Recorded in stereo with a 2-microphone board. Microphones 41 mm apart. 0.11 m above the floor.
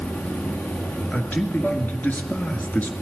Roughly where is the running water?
Left.